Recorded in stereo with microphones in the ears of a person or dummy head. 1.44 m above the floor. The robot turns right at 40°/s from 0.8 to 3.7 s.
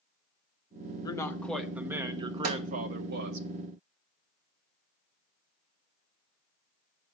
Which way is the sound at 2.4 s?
55° right (ahead or behind).